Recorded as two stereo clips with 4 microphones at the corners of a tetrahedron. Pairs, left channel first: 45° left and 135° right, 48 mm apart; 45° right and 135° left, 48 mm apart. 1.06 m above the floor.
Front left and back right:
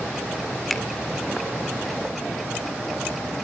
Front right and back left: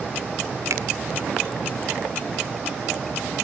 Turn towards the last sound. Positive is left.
turn(degrees=130)